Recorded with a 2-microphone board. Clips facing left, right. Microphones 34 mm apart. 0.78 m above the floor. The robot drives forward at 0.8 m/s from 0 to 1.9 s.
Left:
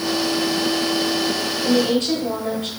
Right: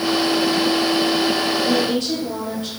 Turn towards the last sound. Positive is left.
turn(degrees=50)  # may be behind; listen again after turning